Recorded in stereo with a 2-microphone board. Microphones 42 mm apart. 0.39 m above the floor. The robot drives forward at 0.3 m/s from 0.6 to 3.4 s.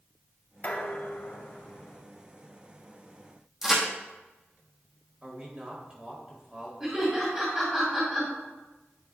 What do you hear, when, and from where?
0.6 s dishes clattering: 45° left (ahead or behind), 1.2 m; by 2.0 s 55° left (ahead or behind), 1.0 m
3.6 s a crack: 10° right (ahead or behind), 2.5 m
5.2 s a man speaking: 25° right (ahead or behind), 1.4 m
6.8 s laughter: 15° right (ahead or behind), 2.5 m